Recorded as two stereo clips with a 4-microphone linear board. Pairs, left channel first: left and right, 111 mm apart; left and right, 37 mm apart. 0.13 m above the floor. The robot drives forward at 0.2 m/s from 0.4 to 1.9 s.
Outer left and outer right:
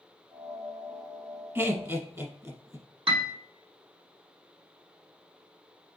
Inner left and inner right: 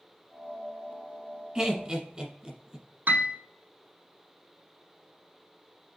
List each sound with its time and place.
1.6 s laughter: 25° right (ahead or behind), 1.4 m
3.1 s a piano: 60° right (ahead or behind), 0.9 m